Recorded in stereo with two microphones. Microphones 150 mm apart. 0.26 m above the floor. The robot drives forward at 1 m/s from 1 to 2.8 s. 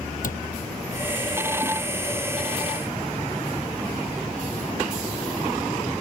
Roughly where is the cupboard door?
Left.